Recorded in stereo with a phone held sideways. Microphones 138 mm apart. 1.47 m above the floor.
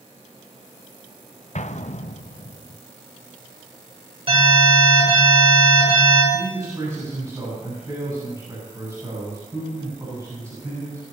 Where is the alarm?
45° right (ahead or behind), 8 m.